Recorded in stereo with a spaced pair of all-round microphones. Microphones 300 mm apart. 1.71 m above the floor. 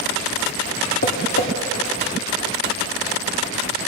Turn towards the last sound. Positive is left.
turn(degrees=50)  # may be behind; listen again after turning